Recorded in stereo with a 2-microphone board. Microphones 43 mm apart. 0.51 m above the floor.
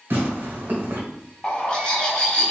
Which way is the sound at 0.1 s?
60° right (ahead or behind).